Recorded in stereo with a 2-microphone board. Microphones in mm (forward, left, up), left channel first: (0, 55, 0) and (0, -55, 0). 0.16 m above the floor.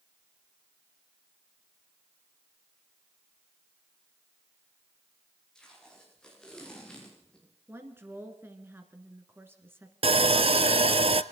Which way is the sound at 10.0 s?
60° right (ahead or behind).